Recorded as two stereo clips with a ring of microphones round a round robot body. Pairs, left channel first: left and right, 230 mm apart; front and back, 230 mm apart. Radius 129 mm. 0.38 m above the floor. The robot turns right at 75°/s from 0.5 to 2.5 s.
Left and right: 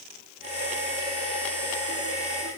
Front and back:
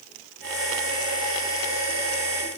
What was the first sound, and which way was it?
Only background noise.